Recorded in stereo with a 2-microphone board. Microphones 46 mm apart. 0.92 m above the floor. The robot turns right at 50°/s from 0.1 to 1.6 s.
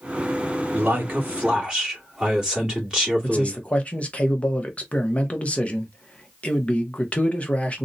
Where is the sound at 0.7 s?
60° right, 2.0 m; by 3.6 s 20° right, 2.0 m.